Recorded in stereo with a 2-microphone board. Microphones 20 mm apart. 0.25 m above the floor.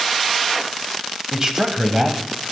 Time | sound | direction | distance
1.3 | a man speaking | 30° right (ahead or behind) | 1.4 m